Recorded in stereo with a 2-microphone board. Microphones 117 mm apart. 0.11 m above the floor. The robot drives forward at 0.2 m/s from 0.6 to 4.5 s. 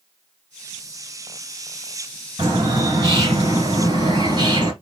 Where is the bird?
35° right (ahead or behind), 1.7 m; by 4.7 s 30° right (ahead or behind), 1.8 m.